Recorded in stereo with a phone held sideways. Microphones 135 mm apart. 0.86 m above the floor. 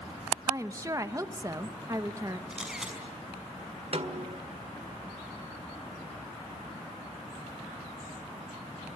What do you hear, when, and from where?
0.5 s a woman speaking: 25° right (ahead or behind), 1.0 m
2.5 s a camera shutter: 5° right (ahead or behind), 5.5 m
3.9 s a snare drum: 55° right (ahead or behind), 1.7 m